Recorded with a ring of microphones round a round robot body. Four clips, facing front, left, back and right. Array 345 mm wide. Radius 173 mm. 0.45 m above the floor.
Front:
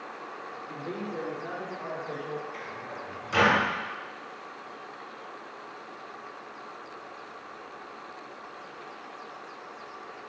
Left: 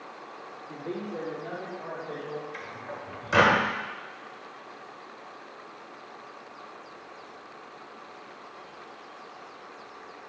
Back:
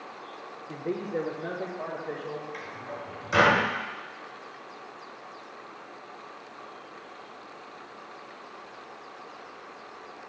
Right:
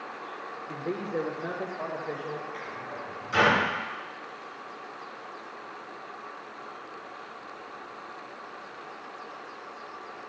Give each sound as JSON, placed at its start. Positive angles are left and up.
{"t": 0.7, "sound": "a man speaking", "azimuth_deg": -145, "distance_m": 1.0}
{"t": 2.5, "sound": "a microwave", "azimuth_deg": 110, "distance_m": 1.4}